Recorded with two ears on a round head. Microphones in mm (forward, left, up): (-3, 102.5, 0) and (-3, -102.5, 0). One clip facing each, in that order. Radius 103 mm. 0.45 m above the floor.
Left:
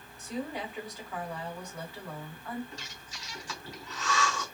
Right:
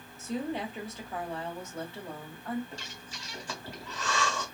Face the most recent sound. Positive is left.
turn(degrees=-45)  # may be behind; listen again after turning